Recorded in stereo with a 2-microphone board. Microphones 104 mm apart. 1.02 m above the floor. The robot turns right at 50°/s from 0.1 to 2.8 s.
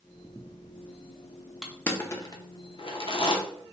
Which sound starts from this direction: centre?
Crushing, at 1.6 s.